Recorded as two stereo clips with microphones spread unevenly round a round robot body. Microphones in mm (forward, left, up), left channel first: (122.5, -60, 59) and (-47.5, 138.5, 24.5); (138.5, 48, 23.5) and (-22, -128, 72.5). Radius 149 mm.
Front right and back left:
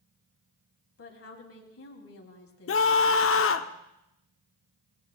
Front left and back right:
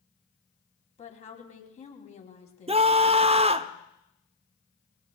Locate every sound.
1.0 s a woman speaking: 10° right, 3 m
2.7 s a scream: 65° right, 0.9 m